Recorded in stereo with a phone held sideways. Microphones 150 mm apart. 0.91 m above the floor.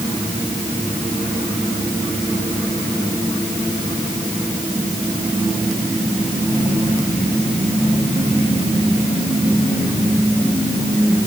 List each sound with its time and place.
Only background noise.